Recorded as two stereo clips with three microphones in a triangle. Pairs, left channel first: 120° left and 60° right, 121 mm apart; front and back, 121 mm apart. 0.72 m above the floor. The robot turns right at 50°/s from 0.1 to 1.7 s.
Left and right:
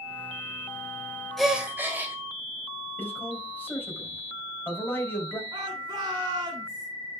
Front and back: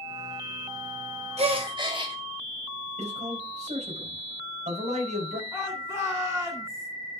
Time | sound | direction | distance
1.4 | a gasp | 150° right | 1.9 m
3.0 | a man speaking | 165° right | 4 m
5.5 | a shout | 115° right | 3 m